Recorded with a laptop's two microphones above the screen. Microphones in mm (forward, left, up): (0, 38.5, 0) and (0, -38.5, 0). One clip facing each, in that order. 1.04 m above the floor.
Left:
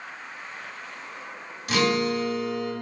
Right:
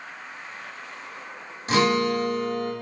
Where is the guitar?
30° right (ahead or behind), 0.8 m.